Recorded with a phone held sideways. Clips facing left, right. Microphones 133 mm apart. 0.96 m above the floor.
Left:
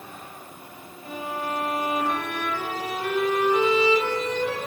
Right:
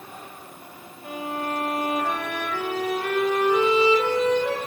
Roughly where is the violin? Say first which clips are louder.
Right 1 dB; right.